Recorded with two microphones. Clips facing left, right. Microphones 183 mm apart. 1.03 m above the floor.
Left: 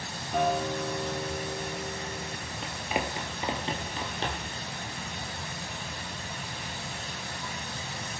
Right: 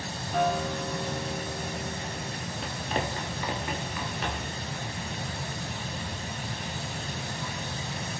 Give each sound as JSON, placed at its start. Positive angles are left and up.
{"t": 0.3, "sound": "a guitar", "side_deg": 10, "distance_m": 2.0}
{"t": 2.6, "sound": "running footsteps", "side_deg": 0, "distance_m": 1.2}